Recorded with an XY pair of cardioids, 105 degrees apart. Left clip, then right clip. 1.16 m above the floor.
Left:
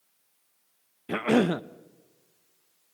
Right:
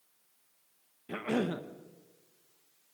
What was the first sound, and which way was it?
A cough, 55° left.